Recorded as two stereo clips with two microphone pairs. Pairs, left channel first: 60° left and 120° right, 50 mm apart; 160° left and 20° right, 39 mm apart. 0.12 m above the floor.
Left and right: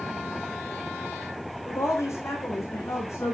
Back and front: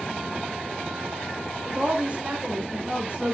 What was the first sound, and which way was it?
A woman speaking, 35° left.